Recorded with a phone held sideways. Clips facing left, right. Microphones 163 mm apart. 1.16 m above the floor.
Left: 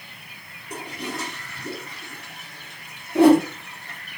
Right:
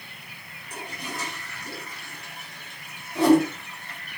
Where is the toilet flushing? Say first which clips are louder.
Left 4 dB; 65° left (ahead or behind), 5 m.